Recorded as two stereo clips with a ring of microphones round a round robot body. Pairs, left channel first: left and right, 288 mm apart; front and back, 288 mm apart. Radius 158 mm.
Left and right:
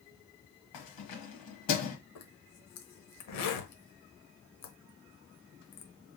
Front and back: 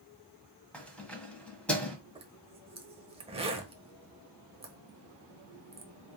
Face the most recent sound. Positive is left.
turn(degrees=110)